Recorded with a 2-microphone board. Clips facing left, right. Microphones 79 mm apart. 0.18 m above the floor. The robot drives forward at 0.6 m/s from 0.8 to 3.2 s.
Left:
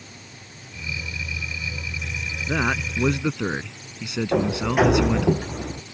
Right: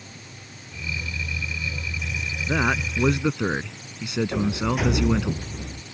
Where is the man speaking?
10° right (ahead or behind).